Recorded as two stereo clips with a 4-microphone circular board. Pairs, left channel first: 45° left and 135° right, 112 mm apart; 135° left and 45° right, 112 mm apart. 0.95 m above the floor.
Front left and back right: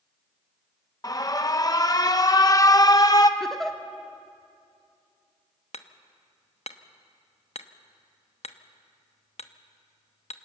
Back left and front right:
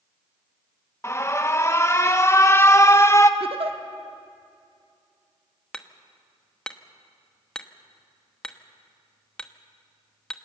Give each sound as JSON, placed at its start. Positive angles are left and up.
{"t": 1.0, "sound": "an alarm", "azimuth_deg": 85, "distance_m": 0.8}
{"t": 3.4, "sound": "a giggle", "azimuth_deg": -40, "distance_m": 1.1}
{"t": 5.7, "sound": "hammering", "azimuth_deg": 55, "distance_m": 0.8}